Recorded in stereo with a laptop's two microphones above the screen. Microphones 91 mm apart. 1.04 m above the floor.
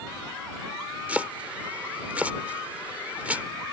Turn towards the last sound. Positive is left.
turn(degrees=-15)  # may be behind; listen again after turning